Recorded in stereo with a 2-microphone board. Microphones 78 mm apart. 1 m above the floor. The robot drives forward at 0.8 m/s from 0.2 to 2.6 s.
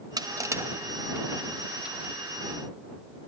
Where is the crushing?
55° right (ahead or behind); by 2.1 s 15° right (ahead or behind).